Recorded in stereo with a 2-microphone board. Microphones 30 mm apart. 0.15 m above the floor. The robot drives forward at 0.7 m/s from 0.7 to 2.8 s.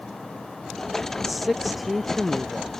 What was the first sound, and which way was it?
A man speaking, 5° right (ahead or behind).